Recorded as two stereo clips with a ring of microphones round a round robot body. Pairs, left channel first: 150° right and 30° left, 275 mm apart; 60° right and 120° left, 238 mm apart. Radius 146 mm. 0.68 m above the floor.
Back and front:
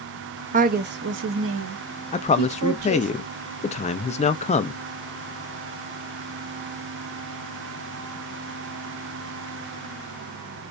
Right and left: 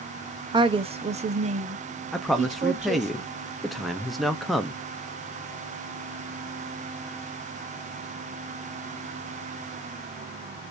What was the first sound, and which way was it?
A woman speaking, 65° left.